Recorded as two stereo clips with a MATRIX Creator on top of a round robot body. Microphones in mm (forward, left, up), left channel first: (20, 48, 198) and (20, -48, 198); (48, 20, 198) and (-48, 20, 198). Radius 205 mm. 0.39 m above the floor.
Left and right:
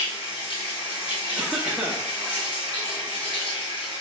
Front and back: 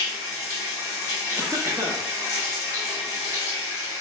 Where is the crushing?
I don't hear crushing.